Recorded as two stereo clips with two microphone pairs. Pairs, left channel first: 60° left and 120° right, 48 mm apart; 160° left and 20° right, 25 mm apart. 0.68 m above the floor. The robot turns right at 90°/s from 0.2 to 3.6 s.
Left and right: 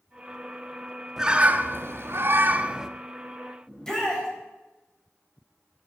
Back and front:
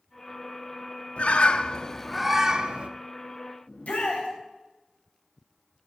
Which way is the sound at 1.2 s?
165° left.